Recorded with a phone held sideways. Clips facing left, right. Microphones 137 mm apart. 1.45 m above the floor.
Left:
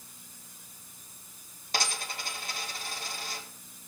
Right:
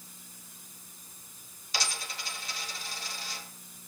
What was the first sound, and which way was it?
A dropped coin, 50° left (ahead or behind).